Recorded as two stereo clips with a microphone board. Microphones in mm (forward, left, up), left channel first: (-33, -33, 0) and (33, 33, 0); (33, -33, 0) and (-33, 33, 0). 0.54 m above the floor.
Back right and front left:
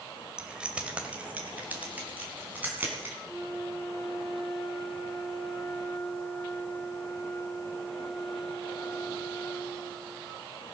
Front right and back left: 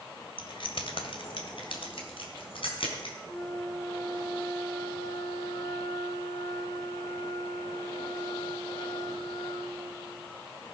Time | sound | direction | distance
0.4 | keys jangling | 35° right | 1.7 m
3.3 | a flute | 10° right | 8 m